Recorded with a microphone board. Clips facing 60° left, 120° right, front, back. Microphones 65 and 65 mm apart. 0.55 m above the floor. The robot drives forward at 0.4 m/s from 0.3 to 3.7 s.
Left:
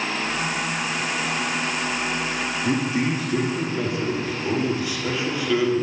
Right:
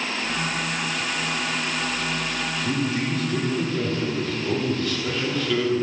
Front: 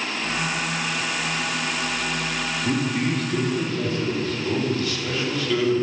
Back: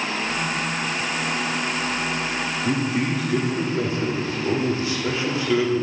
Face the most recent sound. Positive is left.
turn(degrees=130)